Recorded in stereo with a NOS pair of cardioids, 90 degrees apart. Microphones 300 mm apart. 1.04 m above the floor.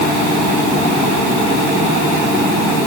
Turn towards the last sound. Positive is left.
No sound to turn to.